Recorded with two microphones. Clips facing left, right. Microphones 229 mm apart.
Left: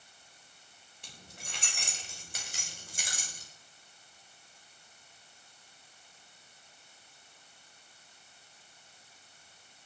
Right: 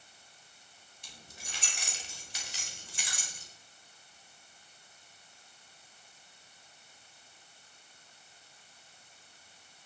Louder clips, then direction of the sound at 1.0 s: Left 2 dB; 55° left (ahead or behind).